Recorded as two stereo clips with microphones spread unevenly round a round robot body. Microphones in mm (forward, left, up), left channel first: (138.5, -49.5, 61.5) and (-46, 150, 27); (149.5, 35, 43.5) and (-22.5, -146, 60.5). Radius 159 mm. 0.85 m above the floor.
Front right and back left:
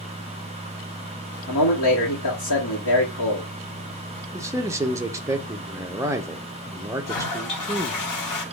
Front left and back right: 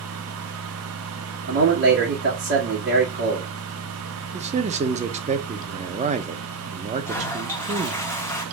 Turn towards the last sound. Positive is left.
turn(degrees=-35)